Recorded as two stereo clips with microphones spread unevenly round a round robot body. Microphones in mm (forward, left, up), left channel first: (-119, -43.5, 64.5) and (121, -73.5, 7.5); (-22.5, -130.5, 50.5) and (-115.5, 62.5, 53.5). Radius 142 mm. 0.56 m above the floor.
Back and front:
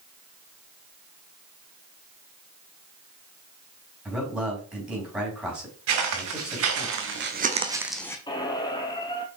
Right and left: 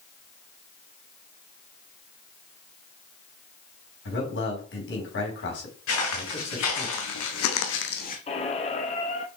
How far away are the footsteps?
About 3 m.